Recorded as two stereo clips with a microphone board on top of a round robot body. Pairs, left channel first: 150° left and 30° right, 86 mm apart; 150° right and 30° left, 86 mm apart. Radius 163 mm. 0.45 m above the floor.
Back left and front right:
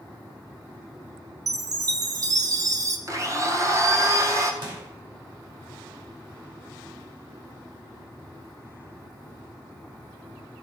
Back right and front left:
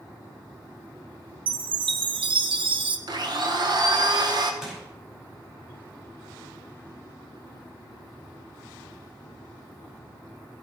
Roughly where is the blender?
Ahead.